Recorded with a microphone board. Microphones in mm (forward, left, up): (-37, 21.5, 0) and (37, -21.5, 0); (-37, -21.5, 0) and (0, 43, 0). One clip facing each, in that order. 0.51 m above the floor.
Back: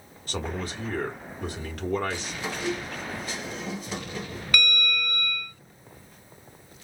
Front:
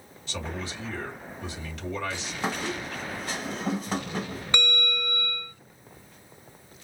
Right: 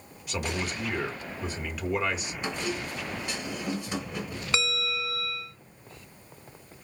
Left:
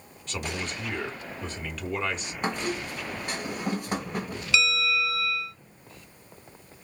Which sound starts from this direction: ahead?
A squeak, at 2.4 s.